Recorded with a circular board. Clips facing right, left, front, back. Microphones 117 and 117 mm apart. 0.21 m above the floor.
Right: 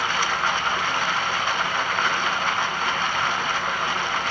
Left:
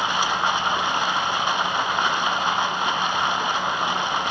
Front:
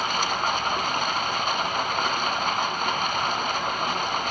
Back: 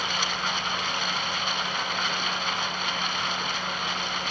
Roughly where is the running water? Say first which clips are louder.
Left 2 dB, front 5 dB; ahead left.